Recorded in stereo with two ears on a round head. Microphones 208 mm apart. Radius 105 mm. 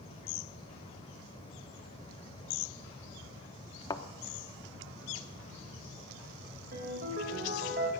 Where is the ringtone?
40° right (ahead or behind), 2.5 m.